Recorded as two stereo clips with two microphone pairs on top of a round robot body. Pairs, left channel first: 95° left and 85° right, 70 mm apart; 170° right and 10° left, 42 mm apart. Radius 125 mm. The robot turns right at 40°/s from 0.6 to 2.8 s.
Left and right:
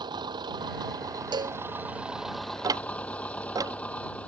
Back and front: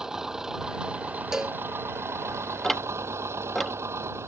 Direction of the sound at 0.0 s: 65° right.